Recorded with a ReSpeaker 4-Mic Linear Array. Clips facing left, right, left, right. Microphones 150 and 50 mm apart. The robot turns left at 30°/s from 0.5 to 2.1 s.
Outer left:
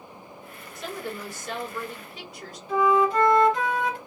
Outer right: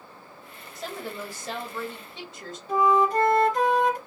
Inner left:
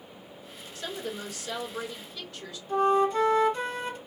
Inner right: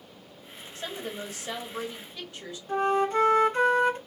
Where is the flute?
40° right (ahead or behind), 0.8 m.